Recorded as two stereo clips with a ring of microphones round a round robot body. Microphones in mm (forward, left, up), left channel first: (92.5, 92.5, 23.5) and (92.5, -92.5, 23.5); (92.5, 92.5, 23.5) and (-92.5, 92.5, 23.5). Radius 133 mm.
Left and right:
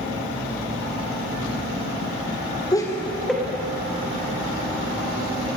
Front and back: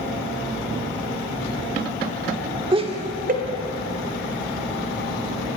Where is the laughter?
140° left, 1.4 m; by 5.6 s 155° right, 3.5 m.